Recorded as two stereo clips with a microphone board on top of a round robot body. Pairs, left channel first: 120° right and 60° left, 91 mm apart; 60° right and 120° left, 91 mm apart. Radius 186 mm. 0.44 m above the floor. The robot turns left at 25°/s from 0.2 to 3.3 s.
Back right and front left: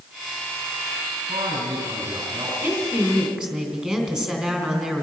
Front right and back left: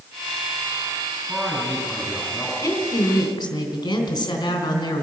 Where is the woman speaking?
Straight ahead, 3.5 m; by 5.0 s 20° right, 3.5 m.